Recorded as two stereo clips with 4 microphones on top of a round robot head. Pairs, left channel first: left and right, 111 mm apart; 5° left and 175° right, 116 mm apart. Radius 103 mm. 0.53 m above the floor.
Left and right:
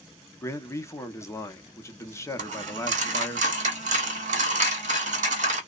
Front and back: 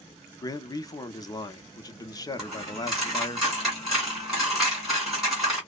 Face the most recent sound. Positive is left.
turn(degrees=-90)